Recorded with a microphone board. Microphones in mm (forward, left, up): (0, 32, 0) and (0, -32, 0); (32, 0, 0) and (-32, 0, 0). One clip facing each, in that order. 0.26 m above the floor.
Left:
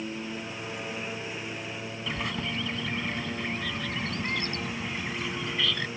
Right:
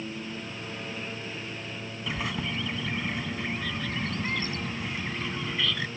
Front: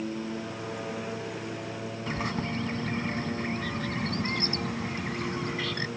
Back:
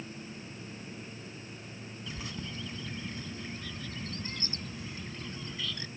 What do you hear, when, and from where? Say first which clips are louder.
0.0 s a lawn mower: left 1 dB, front 11 dB; 15° left
2.1 s a bird: right 1 dB, front 10 dB; straight ahead